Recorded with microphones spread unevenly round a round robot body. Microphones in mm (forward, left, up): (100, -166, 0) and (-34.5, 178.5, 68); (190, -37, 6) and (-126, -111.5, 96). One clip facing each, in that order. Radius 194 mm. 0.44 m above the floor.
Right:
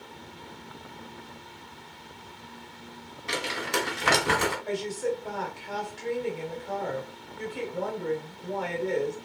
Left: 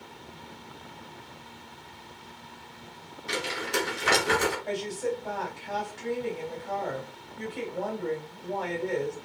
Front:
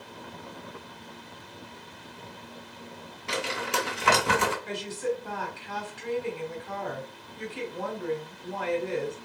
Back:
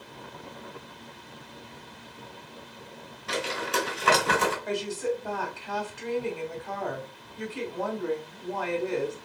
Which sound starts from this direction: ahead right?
Crumpling, at 3.3 s.